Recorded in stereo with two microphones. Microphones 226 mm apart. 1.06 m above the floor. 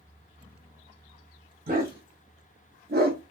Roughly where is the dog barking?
Right.